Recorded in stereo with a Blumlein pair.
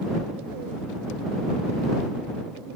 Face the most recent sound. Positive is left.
No sound to turn to.